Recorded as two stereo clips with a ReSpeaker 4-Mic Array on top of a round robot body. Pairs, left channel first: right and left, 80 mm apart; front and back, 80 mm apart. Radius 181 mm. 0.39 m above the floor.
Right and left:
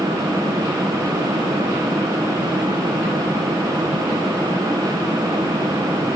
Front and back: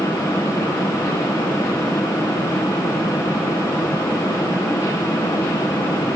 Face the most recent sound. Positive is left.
No sound to turn to.